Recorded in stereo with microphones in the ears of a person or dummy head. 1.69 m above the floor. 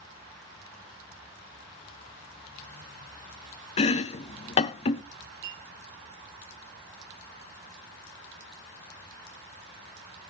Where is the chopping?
30° left (ahead or behind), 0.5 m.